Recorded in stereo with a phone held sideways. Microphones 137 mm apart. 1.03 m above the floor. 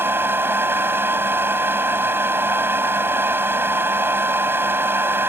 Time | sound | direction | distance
0.0 | a fan | 15° right (ahead or behind) | ?